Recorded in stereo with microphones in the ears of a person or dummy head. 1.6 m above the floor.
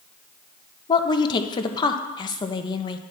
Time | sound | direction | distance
0.9 | a woman speaking | 25° left (ahead or behind) | 0.6 m